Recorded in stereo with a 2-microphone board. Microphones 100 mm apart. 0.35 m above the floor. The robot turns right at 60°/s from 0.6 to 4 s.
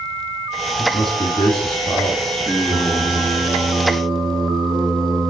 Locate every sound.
0.8 s a man speaking: 55° left, 1.9 m; by 3.4 s 145° right, 1.9 m
2.4 s singing: 130° left, 3.5 m; by 5.3 s 135° right, 3.5 m